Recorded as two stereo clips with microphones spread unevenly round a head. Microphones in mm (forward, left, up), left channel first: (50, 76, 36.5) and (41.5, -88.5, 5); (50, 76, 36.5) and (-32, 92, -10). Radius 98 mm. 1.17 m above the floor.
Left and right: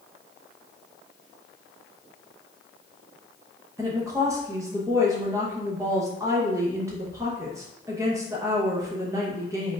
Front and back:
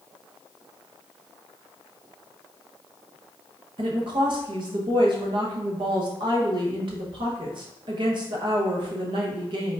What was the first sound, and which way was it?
A woman speaking, 165° right.